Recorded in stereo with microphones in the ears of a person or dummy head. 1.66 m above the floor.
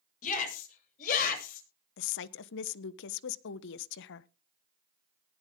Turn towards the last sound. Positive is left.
turn(degrees=60)  # may be behind; listen again after turning